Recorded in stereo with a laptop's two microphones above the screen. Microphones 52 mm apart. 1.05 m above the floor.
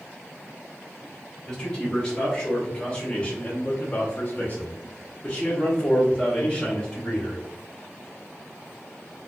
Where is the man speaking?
10° left (ahead or behind), 1.8 m; by 7.4 s 20° left (ahead or behind), 2 m.